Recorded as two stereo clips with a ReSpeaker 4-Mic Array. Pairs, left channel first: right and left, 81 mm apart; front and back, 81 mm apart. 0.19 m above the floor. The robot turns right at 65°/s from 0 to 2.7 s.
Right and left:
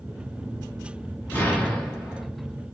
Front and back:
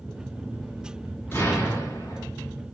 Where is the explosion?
40° right, 1.4 m; by 2.2 s 20° left, 1.4 m.